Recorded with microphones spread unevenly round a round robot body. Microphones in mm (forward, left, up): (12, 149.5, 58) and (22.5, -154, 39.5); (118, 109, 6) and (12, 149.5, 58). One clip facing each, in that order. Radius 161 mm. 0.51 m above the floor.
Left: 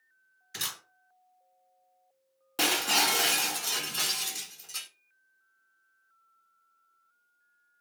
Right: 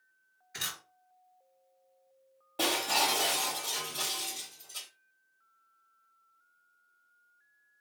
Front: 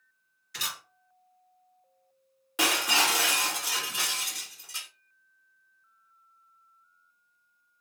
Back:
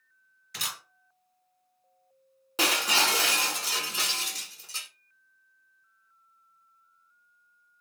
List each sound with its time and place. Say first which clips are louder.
0.5 s a camera shutter: left 2 dB, even; 135° left, 1.8 m
2.6 s breaking glass: left 1 dB, even; 110° left, 1.4 m